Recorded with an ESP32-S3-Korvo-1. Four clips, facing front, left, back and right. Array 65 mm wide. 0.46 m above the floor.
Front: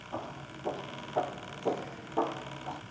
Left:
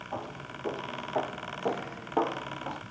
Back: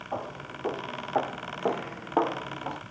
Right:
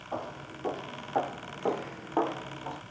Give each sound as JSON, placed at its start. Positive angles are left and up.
{"t": 0.1, "sound": "footsteps", "azimuth_deg": -160, "distance_m": 2.5}